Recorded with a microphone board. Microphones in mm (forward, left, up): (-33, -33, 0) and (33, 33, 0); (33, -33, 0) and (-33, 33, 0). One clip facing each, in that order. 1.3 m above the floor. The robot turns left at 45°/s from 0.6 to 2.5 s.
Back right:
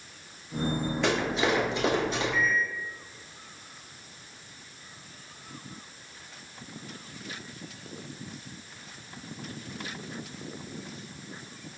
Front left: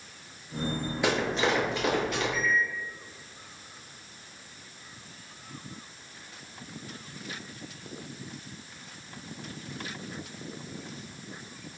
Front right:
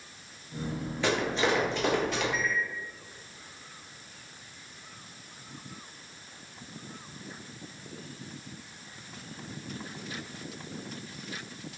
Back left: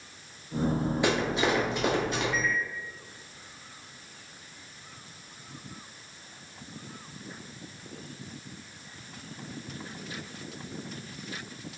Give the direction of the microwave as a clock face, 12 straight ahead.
4 o'clock.